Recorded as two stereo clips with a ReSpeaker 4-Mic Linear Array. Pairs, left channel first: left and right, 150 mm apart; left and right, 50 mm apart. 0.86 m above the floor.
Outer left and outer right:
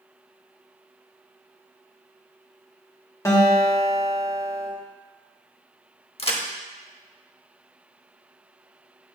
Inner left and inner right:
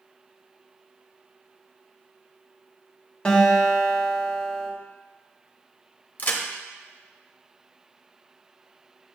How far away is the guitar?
About 1.3 m.